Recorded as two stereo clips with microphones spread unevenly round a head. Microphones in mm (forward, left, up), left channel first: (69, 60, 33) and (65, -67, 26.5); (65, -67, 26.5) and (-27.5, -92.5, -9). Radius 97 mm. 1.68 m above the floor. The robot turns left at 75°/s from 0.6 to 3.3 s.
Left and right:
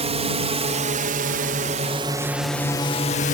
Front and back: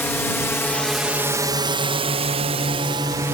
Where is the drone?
55° right; by 3.4 s 125° left.